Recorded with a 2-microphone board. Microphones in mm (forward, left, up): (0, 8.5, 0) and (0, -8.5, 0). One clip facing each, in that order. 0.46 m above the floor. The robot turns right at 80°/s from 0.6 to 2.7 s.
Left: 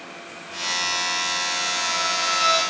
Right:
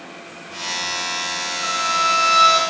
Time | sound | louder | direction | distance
1.6 | a violin | right 4 dB | 110° right | 5 m